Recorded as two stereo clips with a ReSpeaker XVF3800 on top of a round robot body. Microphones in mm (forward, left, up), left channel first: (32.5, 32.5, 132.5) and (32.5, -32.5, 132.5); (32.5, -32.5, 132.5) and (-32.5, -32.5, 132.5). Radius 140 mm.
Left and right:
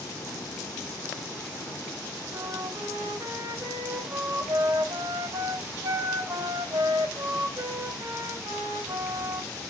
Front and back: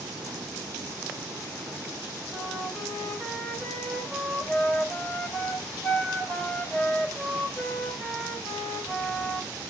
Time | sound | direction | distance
2.3 | a flute | 75° right | 3 m